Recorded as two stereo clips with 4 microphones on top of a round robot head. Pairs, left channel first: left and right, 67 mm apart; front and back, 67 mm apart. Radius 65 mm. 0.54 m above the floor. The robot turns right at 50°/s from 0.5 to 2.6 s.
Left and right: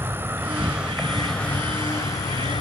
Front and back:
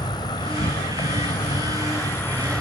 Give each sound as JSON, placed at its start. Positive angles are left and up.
{"t": 0.0, "sound": "an insect", "azimuth_deg": -30, "distance_m": 0.7}